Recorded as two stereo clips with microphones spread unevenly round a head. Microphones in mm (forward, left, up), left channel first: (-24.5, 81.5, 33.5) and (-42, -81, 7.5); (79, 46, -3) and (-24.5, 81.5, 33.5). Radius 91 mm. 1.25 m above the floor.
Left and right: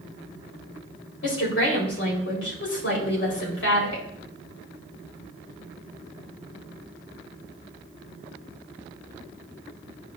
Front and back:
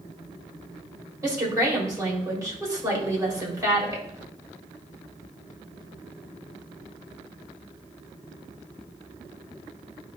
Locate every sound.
1.2 s a woman speaking: 100° left, 4 m